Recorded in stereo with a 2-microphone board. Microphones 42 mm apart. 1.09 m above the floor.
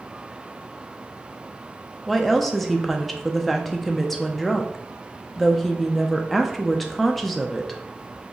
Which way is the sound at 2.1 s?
5° left (ahead or behind).